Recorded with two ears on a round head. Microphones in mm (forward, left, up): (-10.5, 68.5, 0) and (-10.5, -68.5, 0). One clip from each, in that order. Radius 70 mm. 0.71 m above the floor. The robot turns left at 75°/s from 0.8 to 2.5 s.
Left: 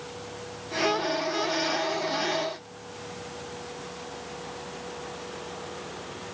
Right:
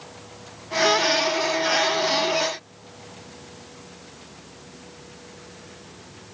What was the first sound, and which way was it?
Only background noise.